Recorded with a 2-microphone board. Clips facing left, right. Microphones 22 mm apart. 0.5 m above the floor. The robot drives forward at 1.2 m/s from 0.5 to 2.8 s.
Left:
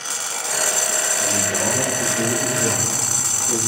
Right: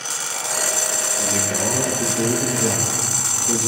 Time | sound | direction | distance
1.2 | a man speaking | 30° right (ahead or behind) | 9 m